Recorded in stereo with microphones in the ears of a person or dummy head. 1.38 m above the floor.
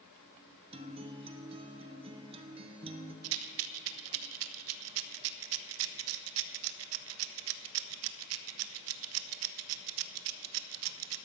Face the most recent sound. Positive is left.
turn(degrees=-75)  # may be behind; listen again after turning